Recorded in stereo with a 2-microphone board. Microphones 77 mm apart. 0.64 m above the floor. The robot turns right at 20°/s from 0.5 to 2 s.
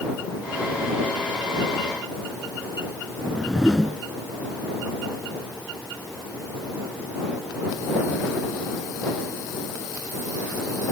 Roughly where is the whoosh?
Centre.